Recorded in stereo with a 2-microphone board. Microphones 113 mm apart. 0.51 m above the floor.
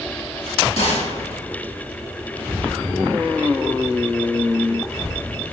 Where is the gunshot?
80° left, 2.5 m.